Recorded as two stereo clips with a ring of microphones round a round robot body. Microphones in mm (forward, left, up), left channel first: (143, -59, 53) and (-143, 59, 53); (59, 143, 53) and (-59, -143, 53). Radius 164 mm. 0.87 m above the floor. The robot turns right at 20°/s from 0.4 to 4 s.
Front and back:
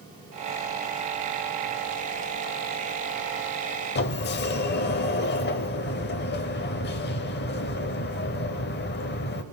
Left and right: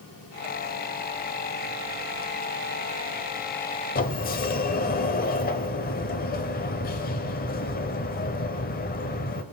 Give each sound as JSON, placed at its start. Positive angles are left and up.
{"t": 4.0, "sound": "a sliding door", "azimuth_deg": 15, "distance_m": 0.7}